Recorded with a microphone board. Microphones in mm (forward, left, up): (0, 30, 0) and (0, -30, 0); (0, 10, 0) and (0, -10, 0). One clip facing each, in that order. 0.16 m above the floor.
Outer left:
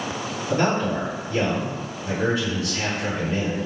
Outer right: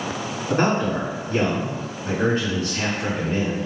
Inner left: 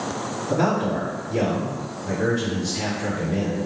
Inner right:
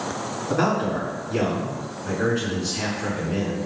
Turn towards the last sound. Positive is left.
turn(degrees=-40)  # may be behind; listen again after turning